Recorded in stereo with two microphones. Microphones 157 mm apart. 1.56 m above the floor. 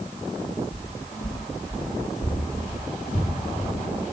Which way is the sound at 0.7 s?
45° left (ahead or behind).